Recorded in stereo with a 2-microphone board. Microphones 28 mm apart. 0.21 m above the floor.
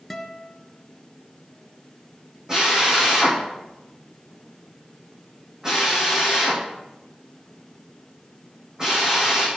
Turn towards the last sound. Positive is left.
turn(degrees=-20)  # may be behind; listen again after turning